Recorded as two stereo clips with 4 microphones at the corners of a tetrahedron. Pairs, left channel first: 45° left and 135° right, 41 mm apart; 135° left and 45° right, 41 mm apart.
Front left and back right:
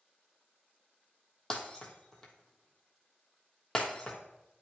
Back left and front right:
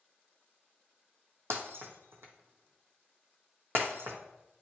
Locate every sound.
1.5 s breaking glass: 30° right, 1.3 m